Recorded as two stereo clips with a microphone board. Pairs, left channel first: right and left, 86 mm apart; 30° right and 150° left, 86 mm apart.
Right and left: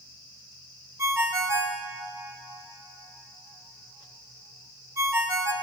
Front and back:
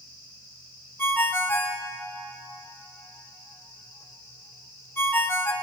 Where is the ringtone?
35° left, 0.7 m.